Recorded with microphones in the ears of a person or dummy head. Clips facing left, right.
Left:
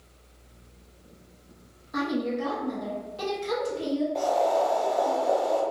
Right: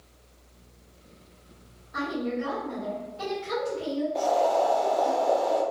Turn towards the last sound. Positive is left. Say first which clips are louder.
# right 2 dB
turn(degrees=-5)  # may be behind; listen again after turning